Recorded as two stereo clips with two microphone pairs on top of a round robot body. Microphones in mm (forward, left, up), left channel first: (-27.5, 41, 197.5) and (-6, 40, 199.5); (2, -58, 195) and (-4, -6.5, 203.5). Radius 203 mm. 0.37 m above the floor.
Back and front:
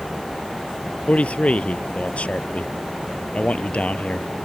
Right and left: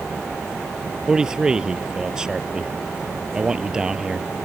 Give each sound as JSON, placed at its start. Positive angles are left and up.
{"t": 1.1, "sound": "a man speaking", "azimuth_deg": 170}